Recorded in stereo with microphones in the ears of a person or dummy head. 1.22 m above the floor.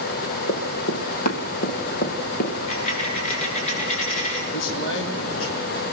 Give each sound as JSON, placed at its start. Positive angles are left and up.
{"t": 0.5, "sound": "running footsteps", "side_deg": 45, "distance_m": 3.0}
{"t": 2.7, "sound": "a dropped coin", "side_deg": 35, "distance_m": 7.5}
{"t": 4.5, "sound": "a man speaking", "side_deg": 70, "distance_m": 4.0}